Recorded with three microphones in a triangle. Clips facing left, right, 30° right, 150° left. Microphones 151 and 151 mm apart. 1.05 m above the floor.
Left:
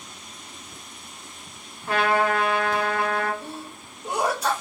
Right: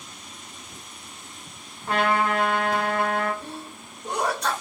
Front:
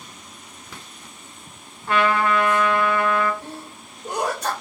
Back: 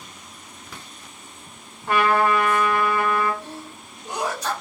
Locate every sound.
1.9 s a trumpet: 140° right, 1.5 m
3.4 s a sneeze: 10° left, 0.7 m